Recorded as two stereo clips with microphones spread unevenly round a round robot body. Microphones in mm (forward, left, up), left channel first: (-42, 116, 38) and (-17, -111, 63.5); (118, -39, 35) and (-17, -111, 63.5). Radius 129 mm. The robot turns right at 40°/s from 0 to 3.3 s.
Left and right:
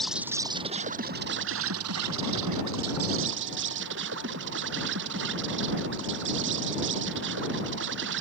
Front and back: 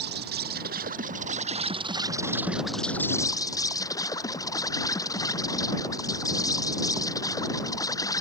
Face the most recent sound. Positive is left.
turn(degrees=-40)